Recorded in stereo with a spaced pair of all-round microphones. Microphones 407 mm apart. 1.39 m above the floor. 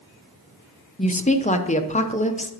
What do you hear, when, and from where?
1.0 s a woman speaking: 20° left (ahead or behind), 0.7 m